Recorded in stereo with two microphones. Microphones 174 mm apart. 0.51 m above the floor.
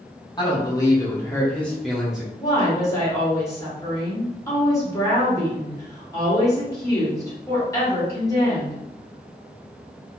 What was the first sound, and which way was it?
A man speaking, 25° left (ahead or behind).